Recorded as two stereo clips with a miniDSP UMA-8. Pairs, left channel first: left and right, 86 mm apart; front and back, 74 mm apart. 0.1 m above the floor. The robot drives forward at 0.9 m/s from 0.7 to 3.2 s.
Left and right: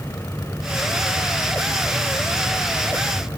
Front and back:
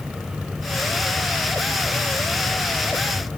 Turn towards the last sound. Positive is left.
No sound to turn to.